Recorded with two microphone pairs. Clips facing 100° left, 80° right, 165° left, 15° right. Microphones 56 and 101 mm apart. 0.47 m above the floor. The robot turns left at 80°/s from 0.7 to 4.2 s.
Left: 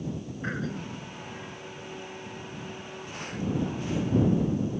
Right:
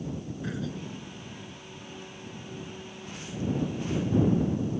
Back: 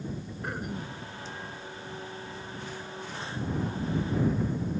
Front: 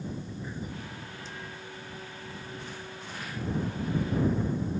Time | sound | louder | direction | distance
0.4 | throat clearing | left 4 dB, back 3 dB | 150° left | ?